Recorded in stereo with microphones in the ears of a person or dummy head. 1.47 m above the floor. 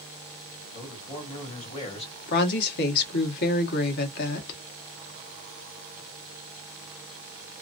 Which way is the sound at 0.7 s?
35° left (ahead or behind).